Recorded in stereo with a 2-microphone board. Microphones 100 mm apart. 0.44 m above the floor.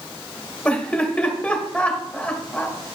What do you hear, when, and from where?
0.7 s laughter: 10° left (ahead or behind), 1.4 m